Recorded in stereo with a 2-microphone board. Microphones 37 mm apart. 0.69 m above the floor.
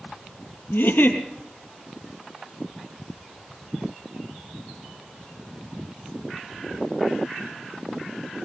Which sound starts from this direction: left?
A giggle, at 0.7 s.